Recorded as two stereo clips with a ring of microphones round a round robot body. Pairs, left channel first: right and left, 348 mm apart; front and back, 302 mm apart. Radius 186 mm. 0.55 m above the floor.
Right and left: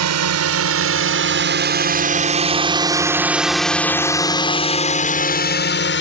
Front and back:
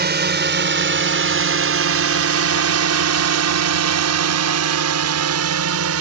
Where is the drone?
125° left; by 6.0 s 145° right.